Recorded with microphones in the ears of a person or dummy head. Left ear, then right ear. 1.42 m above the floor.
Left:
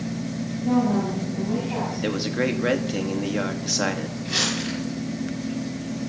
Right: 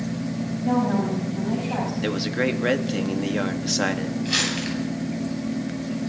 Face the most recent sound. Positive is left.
turn(degrees=-25)  # may be behind; listen again after turning